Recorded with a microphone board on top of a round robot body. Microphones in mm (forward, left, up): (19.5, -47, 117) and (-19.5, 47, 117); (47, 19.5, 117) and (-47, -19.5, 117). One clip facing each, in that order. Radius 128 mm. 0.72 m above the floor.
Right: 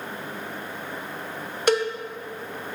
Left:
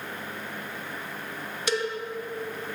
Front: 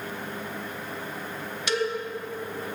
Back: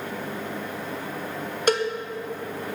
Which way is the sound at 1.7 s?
110° right.